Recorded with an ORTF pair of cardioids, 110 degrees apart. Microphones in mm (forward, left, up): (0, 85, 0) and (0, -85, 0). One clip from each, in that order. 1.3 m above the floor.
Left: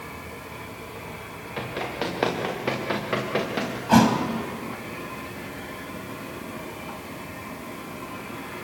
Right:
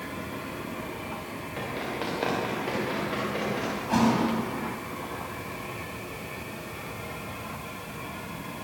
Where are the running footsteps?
35° left, 8 m; by 3.7 s 60° left, 6.5 m.